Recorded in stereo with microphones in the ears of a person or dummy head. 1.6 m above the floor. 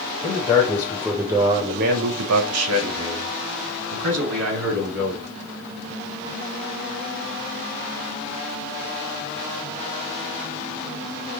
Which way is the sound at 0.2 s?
25° left (ahead or behind).